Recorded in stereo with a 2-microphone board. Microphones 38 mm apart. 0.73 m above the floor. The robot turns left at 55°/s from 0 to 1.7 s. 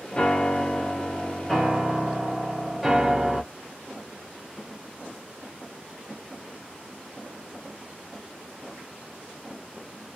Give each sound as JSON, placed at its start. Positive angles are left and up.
{"t": 0.1, "sound": "a piano", "side_deg": 25, "distance_m": 0.6}